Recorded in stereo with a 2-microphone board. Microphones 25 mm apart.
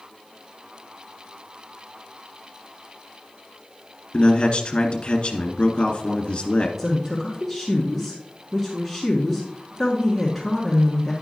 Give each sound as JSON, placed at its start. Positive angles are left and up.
{"t": 4.1, "sound": "a man speaking", "side_deg": 45, "distance_m": 1.8}
{"t": 6.8, "sound": "a woman speaking", "side_deg": 0, "distance_m": 1.5}